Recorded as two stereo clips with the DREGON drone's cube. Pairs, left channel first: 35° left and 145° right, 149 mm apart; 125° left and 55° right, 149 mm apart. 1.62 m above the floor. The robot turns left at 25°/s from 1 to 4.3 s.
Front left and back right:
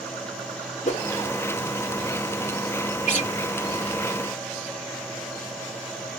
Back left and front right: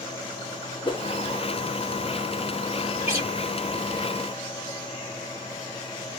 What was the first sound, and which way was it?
A whoosh, 70° left.